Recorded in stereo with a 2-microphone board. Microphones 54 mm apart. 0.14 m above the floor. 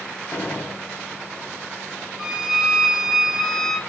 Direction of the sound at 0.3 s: 50° left (ahead or behind).